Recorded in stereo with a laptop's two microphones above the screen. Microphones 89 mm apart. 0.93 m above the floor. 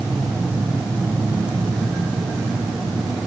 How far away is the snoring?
No snoring in this recording.